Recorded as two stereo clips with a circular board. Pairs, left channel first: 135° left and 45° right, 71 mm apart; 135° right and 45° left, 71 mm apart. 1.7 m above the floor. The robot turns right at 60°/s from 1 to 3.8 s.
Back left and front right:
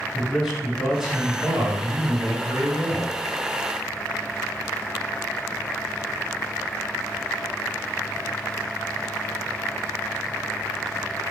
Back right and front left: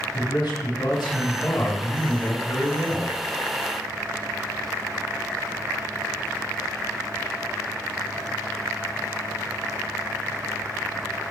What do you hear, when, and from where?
0.1 s a man speaking: 130° right, 4.5 m; by 3.1 s 5° right, 4.5 m